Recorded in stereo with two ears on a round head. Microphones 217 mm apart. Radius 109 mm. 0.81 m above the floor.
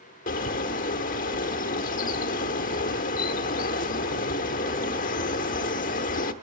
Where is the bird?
35° left (ahead or behind), 0.9 m.